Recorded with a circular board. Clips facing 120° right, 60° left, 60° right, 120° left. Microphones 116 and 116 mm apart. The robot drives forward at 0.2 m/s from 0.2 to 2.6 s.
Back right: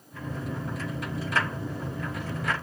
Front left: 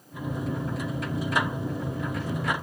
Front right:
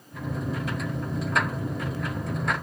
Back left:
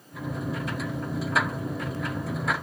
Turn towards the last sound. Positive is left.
No sound to turn to.